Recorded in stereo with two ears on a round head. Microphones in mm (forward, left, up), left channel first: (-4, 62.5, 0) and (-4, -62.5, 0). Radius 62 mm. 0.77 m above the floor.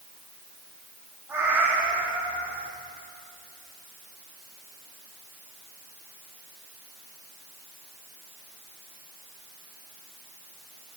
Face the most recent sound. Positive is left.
turn(degrees=-15)  # may be behind; listen again after turning